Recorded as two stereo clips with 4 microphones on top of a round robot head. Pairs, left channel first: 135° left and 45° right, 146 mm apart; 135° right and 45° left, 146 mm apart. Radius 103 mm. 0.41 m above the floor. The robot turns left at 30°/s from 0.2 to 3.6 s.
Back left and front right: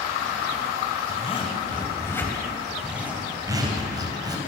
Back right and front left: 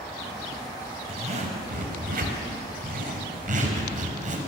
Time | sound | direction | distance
1.1 | a zipper | 95° left | 3.5 m